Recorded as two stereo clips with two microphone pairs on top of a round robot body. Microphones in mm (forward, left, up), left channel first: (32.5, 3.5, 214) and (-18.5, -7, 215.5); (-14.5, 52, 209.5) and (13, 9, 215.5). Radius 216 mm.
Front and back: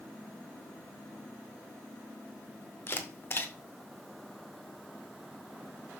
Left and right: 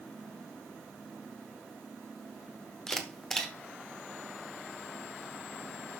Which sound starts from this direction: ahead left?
A camera shutter, at 2.9 s.